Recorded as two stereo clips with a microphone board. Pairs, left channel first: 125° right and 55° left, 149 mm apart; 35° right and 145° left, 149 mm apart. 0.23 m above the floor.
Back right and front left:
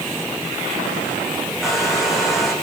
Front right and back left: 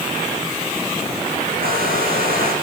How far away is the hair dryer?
About 6 m.